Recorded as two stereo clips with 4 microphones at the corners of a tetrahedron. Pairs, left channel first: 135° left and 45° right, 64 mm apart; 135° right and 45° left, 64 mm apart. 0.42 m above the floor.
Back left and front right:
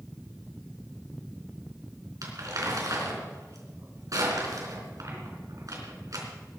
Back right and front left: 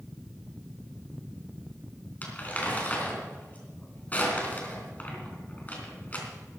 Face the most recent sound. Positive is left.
turn(degrees=-70)